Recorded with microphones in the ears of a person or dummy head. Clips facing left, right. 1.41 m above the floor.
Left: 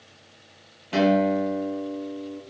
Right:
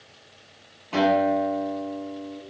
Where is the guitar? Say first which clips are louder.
Left 1 dB; 15° left (ahead or behind), 1.4 m.